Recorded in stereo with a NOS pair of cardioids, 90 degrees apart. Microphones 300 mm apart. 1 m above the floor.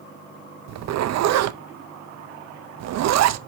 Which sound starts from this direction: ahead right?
A zipper, at 0.7 s.